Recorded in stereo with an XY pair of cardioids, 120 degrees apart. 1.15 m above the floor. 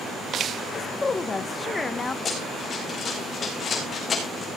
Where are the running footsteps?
35° left, 4 m.